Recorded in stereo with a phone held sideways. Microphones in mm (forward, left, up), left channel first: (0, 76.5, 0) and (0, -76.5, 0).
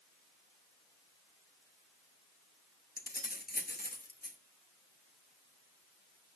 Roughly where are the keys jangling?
Left.